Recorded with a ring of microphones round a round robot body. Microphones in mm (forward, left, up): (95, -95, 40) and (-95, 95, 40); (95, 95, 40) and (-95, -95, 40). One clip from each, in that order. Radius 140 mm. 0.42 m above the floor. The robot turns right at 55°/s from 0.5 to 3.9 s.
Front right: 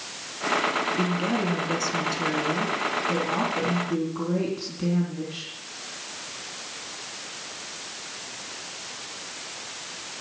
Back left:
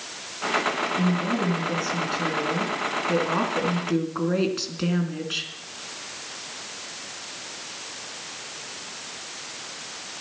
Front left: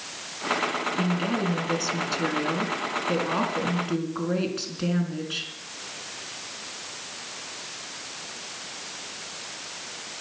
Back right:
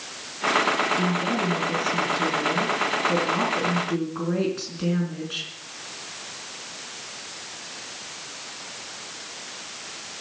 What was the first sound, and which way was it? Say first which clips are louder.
A woman speaking: even, back right 3 dB; 40° right.